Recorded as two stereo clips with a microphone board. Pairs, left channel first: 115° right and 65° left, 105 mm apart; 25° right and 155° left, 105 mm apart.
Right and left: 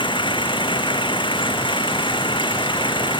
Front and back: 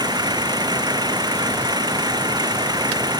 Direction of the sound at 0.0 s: 150° right.